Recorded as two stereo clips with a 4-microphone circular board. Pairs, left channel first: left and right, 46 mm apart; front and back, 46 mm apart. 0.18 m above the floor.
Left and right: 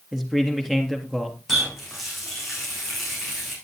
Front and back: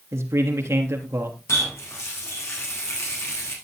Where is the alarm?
No alarm in this recording.